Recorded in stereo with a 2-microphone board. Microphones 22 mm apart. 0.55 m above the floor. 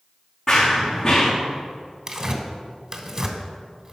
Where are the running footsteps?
20° left (ahead or behind), 2 m.